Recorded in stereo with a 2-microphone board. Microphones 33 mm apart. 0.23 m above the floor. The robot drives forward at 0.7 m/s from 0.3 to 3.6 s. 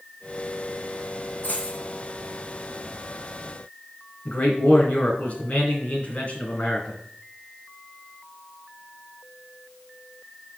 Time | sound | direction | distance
1.4 | a dropped coin | 65° left (ahead or behind) | 4 m
4.2 | a man speaking | 50° left (ahead or behind) | 2.5 m